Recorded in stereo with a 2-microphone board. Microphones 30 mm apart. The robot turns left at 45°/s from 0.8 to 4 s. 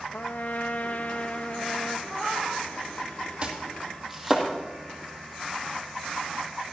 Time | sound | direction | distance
0.1 | a trumpet | 70° left | 0.9 m
2.1 | a cat meowing | 40° right (ahead or behind) | 6.5 m
3.4 | chopping | 30° right (ahead or behind) | 2.5 m